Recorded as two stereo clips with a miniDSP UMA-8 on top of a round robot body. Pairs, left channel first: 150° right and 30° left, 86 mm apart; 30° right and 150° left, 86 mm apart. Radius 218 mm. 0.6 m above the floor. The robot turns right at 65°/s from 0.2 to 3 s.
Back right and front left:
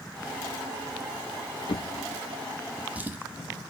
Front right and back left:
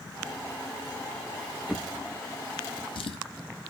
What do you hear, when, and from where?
1.7 s a drawer: 130° right, 0.5 m; by 3.2 s 40° right, 0.5 m